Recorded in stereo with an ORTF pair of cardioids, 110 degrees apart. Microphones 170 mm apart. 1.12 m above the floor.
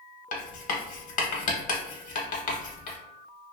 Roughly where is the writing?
Ahead left.